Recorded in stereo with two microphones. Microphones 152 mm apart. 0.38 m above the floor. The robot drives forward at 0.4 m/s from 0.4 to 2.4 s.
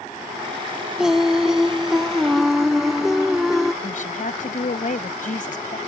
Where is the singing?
5° right (ahead or behind).